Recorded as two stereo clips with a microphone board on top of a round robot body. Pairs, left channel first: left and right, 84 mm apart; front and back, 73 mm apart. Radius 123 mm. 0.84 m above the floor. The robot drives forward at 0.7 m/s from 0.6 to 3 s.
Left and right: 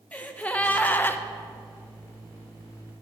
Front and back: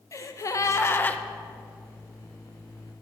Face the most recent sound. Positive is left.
turn(degrees=170)